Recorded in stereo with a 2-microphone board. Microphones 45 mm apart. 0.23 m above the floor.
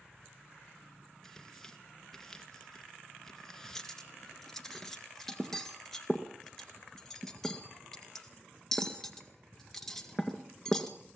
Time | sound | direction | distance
1.2 | tearing paper | 10° left (ahead or behind) | 2 m
3.8 | cutlery clinking | 5° left (ahead or behind) | 1.9 m